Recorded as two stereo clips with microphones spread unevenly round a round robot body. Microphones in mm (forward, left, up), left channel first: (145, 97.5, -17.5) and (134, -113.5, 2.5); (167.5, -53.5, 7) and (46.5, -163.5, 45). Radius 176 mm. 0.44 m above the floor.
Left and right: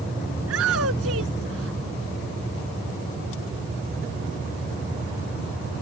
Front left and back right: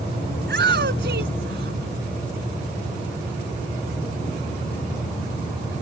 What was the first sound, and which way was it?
A shout, 135° right.